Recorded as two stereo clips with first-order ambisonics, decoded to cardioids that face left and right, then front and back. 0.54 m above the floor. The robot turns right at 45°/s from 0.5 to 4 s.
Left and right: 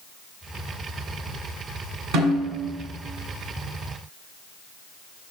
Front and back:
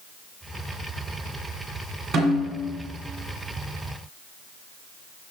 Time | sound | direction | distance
2.1 | a snare drum | 115° right | 1.8 m